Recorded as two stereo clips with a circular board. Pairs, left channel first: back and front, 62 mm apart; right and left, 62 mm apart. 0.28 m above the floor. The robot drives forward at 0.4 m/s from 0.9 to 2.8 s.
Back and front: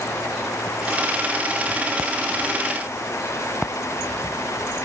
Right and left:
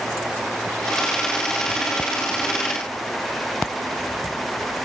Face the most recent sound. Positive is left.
No sound to turn to.